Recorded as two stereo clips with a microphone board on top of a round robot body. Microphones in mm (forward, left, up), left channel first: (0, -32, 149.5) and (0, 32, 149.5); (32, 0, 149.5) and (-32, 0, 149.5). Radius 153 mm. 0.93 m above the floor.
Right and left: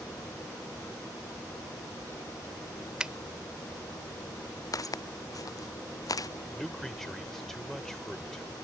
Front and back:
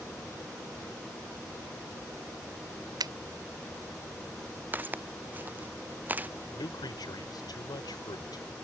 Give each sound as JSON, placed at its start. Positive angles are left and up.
{"t": 3.0, "sound": "a finger snap", "azimuth_deg": 170}
{"t": 4.7, "sound": "footsteps", "azimuth_deg": -120}
{"t": 6.5, "sound": "a man speaking", "azimuth_deg": -5}